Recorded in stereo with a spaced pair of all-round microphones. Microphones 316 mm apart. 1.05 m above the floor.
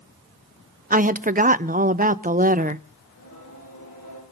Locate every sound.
0.9 s a woman speaking: 25° right (ahead or behind), 0.6 m
3.0 s singing: 85° left, 7.5 m